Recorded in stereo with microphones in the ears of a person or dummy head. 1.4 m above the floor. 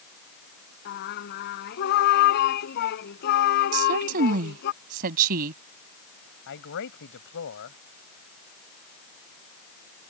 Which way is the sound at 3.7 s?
45° right (ahead or behind).